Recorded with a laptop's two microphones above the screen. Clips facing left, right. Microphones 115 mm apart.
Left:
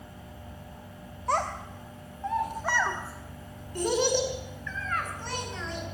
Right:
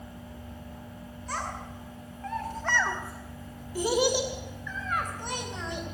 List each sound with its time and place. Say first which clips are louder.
1.3 s a child speaking: left 7 dB; 60° left (ahead or behind), 1.0 m; by 5.8 s 20° right (ahead or behind), 3.5 m